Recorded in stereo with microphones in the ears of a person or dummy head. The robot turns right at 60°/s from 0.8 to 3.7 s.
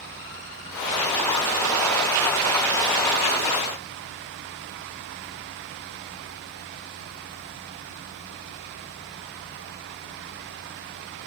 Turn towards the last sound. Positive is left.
No sound to turn to.